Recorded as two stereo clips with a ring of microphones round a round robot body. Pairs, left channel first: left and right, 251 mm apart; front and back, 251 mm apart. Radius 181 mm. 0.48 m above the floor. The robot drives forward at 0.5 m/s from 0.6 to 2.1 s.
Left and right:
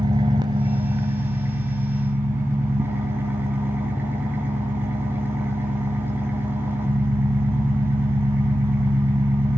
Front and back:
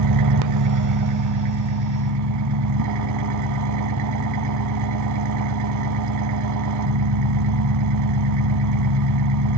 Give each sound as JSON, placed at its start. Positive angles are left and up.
{"t": 0.0, "sound": "an engine running", "azimuth_deg": -170, "distance_m": 0.7}